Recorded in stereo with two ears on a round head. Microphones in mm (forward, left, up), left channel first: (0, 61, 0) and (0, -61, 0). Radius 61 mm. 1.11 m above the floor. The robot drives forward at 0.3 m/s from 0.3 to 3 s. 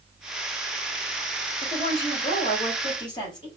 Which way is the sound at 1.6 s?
40° left (ahead or behind).